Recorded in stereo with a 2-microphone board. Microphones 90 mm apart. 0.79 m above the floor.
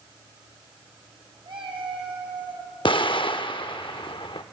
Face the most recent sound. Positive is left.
turn(degrees=65)  # may be behind; listen again after turning